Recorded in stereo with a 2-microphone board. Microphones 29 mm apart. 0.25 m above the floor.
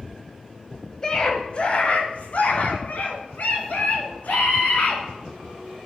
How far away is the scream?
About 1.0 m.